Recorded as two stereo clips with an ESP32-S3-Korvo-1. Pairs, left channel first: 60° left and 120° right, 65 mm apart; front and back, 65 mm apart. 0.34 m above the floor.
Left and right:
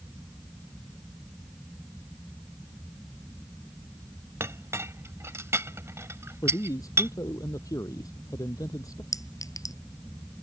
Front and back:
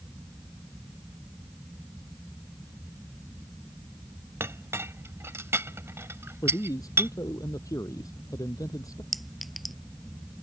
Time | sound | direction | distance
4.4 | a clink | 150° right | ?
6.4 | a man speaking | 30° left | ?
9.1 | a clink | 90° left | ?